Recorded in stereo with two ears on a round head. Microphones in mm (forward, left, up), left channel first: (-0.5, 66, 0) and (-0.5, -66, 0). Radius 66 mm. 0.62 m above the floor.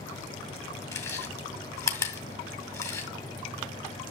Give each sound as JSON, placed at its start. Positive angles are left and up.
{"t": 0.9, "sound": "chewing", "side_deg": 20, "distance_m": 2.0}